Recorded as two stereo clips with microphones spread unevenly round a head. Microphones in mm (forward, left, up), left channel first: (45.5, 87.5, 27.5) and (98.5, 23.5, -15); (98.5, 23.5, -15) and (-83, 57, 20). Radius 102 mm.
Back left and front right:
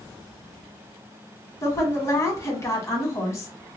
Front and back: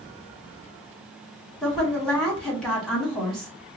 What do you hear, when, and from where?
1.6 s a woman speaking: 75° left, 1.8 m